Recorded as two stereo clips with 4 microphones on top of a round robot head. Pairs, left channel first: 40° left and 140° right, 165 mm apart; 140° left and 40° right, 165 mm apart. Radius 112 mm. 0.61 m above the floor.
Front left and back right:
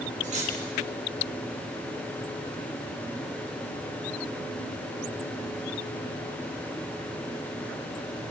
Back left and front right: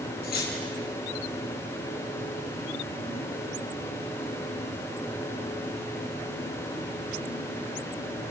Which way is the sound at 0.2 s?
175° left.